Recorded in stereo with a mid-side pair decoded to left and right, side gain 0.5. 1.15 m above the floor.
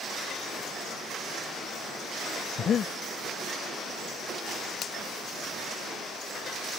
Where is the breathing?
50° left.